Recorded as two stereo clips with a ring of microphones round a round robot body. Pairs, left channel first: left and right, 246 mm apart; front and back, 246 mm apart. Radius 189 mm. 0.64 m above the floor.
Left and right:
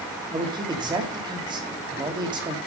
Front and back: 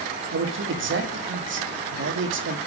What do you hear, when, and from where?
0.3 s a man speaking: 160° right, 1.6 m